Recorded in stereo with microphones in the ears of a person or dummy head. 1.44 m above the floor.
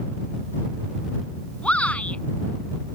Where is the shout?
5° left (ahead or behind).